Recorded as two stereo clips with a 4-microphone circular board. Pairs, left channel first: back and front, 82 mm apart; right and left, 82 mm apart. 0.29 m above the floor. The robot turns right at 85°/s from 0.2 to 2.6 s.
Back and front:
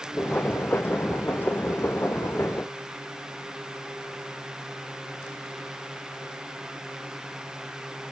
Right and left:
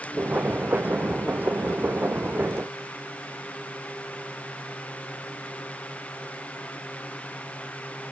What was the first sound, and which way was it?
Only background noise.